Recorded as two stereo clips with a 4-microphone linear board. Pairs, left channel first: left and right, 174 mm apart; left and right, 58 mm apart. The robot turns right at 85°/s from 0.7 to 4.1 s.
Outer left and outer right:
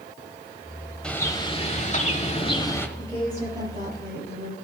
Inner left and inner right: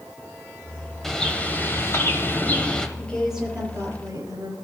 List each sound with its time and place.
1.0 s a bird: 10° left, 1.2 m; by 2.9 s 165° left, 1.2 m
3.0 s a woman speaking: 160° left, 5.5 m; by 4.5 s 105° right, 5.5 m